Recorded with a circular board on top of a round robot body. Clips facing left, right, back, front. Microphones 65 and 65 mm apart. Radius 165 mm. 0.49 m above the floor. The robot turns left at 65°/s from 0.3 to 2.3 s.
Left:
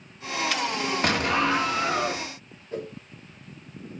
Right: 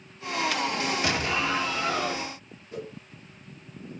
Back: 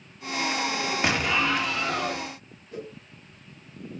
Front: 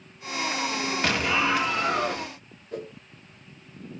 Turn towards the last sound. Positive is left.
turn(degrees=35)